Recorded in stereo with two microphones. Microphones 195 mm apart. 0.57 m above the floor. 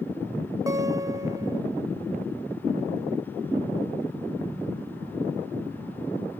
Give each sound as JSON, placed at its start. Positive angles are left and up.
{"t": 0.7, "sound": "a guitar", "side_deg": -20, "distance_m": 0.9}